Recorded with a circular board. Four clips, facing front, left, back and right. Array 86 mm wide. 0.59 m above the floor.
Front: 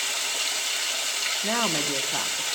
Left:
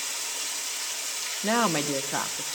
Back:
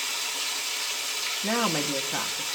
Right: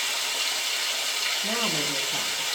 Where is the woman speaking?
90° left, 0.8 m.